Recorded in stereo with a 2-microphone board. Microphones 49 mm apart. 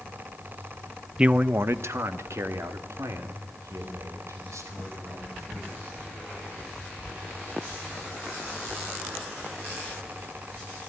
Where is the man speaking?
20° right (ahead or behind), 0.6 m; by 5.7 s 90° right, 6.5 m.